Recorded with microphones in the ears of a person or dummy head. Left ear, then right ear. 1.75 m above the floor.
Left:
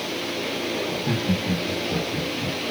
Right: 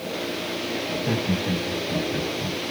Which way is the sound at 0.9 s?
5° left (ahead or behind).